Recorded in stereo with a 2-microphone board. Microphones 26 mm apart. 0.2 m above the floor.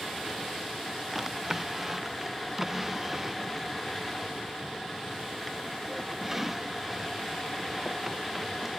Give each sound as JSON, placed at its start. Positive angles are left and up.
{"t": 1.1, "sound": "a drawer", "side_deg": -15}